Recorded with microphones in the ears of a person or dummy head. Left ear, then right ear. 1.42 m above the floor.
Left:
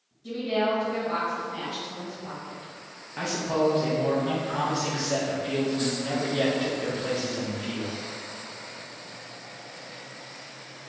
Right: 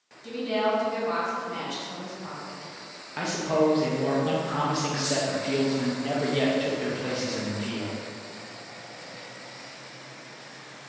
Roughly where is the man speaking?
Centre.